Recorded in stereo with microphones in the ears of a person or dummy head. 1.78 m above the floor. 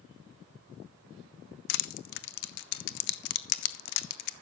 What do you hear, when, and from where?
1.7 s crushing: 60° left (ahead or behind), 0.7 m